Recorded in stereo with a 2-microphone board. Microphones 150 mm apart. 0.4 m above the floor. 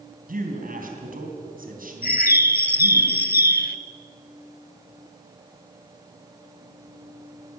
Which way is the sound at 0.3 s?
70° right (ahead or behind).